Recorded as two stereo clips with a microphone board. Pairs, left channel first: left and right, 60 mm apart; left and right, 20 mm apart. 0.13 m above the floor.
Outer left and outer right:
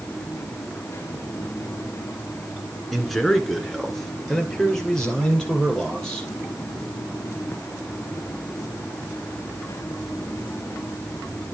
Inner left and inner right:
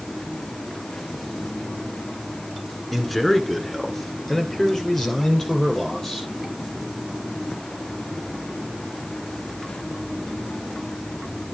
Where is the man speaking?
5° left (ahead or behind), 1.5 m; by 6.3 s 10° left (ahead or behind), 4 m.